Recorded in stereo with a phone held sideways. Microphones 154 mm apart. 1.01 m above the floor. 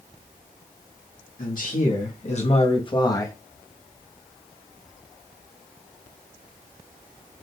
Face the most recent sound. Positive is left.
turn(degrees=15)  # may be behind; listen again after turning